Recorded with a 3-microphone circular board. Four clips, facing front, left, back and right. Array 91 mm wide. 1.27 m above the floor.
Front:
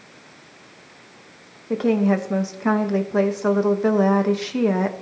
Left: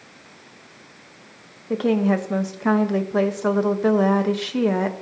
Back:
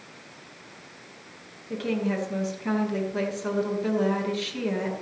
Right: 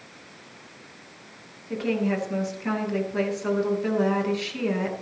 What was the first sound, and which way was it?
A woman speaking, 50° left.